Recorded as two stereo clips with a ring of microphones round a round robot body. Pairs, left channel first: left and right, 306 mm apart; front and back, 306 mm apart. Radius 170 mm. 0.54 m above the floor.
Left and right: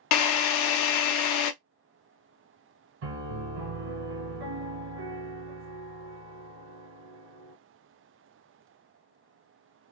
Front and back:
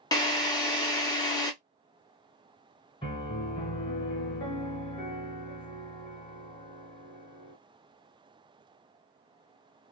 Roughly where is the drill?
Left.